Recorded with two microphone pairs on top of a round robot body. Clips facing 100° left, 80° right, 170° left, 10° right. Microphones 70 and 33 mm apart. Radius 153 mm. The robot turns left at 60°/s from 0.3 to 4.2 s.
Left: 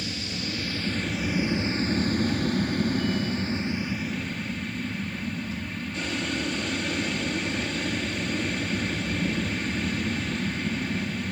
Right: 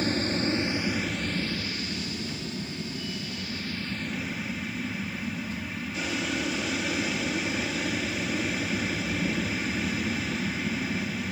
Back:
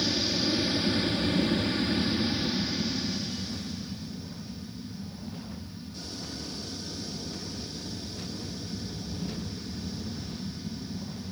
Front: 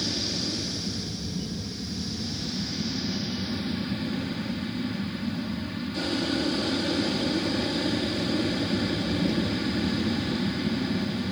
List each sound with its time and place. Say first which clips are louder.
0.0 s an aircraft: right 7 dB, back 2 dB; 120° right; by 11.3 s 10° left